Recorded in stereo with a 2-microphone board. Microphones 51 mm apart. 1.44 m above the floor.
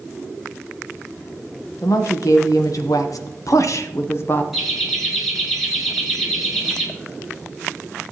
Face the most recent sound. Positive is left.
turn(degrees=0)  # may be behind; listen again after turning